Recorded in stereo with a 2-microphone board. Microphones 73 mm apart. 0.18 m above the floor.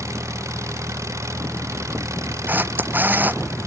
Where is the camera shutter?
25° right (ahead or behind).